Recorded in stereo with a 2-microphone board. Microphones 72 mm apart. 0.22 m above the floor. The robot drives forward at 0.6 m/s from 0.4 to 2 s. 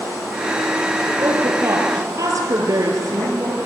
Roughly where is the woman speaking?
Right.